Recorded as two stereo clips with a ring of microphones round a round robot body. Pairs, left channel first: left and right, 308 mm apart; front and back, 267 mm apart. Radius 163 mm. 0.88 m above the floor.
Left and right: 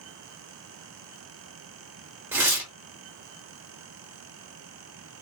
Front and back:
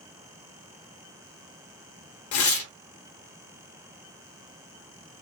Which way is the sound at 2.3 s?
10° right.